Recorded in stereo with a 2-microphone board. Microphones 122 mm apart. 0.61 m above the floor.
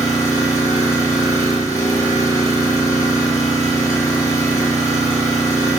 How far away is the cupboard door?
No cupboard door in this recording.